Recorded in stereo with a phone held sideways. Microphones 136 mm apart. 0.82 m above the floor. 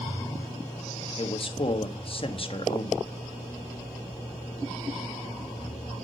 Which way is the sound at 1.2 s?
40° left (ahead or behind).